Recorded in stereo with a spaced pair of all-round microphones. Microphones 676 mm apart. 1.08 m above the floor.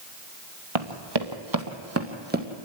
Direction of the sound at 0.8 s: 45° right (ahead or behind).